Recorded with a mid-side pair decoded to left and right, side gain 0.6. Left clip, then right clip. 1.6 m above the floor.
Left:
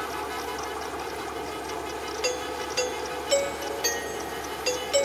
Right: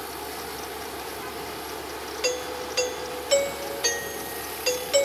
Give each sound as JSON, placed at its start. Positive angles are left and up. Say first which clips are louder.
{"t": 0.0, "sound": "a fan", "louder": "left 3 dB", "azimuth_deg": 20}
{"t": 2.2, "sound": "a doorbell", "louder": "right 2 dB", "azimuth_deg": -5}